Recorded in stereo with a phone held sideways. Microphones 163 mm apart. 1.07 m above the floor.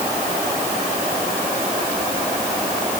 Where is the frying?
I don't hear frying.